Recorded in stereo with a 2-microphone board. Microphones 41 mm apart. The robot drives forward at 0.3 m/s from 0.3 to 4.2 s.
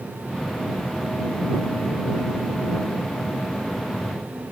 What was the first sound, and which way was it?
Only background noise.